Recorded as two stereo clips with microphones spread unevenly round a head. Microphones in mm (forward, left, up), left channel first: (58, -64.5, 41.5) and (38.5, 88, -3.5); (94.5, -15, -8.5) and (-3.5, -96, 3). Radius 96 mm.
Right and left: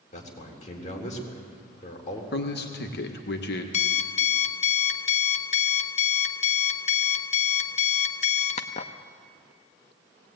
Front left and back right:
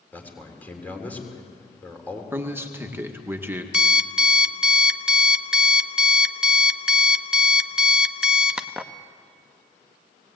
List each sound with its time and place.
0.1 s a man speaking: 40° right, 3.5 m
2.3 s a man speaking: 65° right, 1.7 m
3.7 s an alarm clock: 60° right, 1.0 m